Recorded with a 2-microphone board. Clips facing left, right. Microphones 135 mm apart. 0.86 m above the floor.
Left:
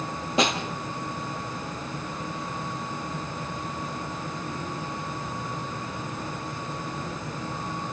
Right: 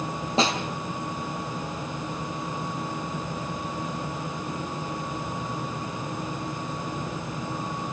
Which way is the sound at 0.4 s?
30° right (ahead or behind).